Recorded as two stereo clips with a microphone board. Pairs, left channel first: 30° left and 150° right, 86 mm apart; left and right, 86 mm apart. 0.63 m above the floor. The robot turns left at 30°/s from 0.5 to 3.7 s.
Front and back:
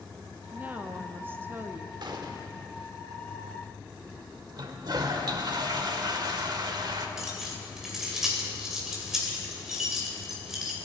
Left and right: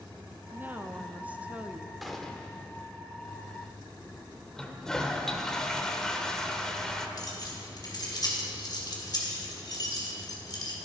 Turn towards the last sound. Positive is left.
turn(degrees=125)